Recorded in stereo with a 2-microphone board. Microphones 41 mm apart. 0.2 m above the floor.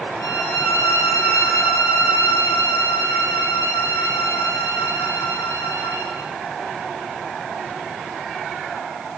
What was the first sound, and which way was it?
A violin, 80° left.